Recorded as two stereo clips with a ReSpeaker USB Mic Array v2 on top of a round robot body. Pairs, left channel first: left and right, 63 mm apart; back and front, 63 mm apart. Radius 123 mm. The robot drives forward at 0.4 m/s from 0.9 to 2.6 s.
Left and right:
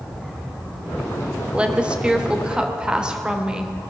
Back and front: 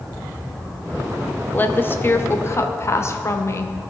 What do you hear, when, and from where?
1.5 s a woman speaking: 150° right, 1.2 m; by 3.8 s 160° right, 1.5 m